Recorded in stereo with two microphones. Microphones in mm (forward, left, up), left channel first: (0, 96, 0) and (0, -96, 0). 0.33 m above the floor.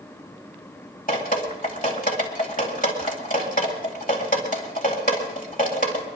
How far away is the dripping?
About 2 m.